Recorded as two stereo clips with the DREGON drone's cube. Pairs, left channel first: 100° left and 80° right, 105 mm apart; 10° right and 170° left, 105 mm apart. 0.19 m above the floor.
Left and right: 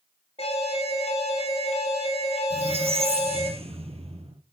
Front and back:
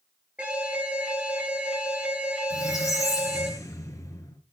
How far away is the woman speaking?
I don't hear a woman speaking.